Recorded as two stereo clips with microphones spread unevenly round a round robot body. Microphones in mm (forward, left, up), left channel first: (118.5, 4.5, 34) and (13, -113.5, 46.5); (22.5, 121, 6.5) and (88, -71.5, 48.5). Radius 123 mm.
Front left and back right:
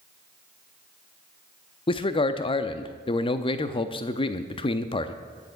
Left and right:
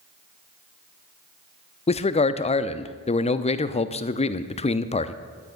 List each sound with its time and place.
1.9 s a man speaking: 85° left, 0.6 m